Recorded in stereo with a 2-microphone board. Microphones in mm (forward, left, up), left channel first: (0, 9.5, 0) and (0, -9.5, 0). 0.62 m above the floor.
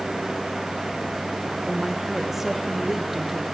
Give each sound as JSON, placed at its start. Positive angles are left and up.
{"t": 1.7, "sound": "a woman speaking", "side_deg": -10, "distance_m": 2.5}